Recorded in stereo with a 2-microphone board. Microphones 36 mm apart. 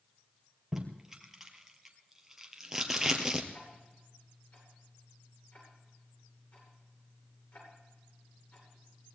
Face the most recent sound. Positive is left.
turn(degrees=55)  # may be behind; listen again after turning